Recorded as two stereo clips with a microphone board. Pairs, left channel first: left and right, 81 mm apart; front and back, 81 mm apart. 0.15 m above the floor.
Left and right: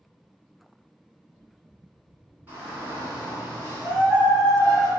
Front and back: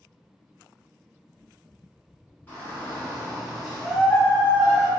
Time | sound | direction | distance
2.5 | a shout | 45° right | 1.4 m